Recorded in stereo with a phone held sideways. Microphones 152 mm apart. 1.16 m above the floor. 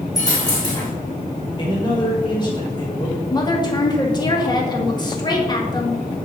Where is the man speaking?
30° left (ahead or behind), 5.5 m.